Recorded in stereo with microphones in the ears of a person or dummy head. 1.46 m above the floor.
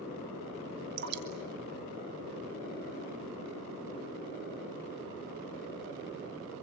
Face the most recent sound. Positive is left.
turn(degrees=-60)  # may be behind; listen again after turning